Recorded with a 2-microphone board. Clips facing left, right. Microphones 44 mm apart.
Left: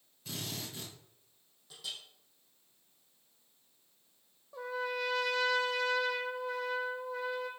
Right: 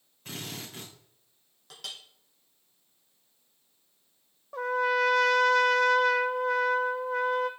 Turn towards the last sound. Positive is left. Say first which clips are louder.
# right 10 dB
turn(degrees=-65)  # may be behind; listen again after turning